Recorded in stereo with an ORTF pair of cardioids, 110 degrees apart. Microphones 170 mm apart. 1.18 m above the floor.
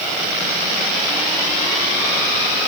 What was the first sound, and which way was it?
Only background noise.